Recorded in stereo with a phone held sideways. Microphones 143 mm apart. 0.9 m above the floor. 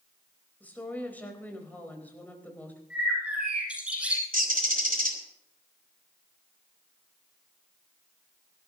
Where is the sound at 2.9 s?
5° right (ahead or behind), 7 m.